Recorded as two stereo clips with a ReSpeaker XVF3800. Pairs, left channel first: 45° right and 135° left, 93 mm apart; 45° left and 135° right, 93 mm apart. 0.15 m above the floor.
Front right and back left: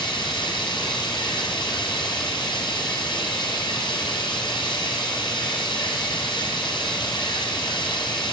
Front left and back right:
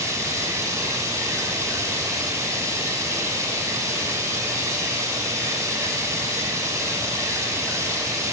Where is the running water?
75° right, 5.5 m.